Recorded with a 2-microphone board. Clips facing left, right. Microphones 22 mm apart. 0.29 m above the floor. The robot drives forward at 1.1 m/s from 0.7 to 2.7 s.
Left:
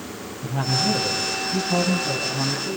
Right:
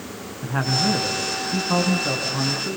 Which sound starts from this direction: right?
A man speaking, at 0.4 s.